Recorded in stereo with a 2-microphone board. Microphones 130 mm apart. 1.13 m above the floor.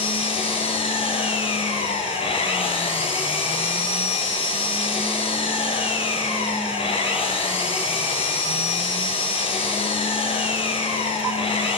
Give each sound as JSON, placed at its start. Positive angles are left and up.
{"t": 0.0, "sound": "an engine running", "side_deg": 45, "distance_m": 10.0}